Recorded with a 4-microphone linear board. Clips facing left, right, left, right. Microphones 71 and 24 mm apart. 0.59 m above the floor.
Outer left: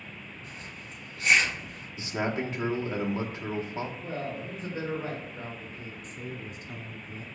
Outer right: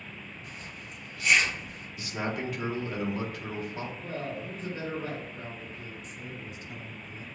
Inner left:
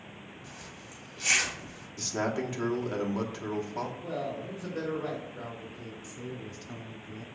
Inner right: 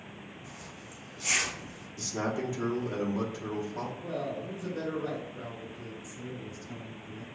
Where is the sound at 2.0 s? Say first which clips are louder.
Outer left 3 dB, inner left 1 dB; 25° left (ahead or behind), 0.9 m.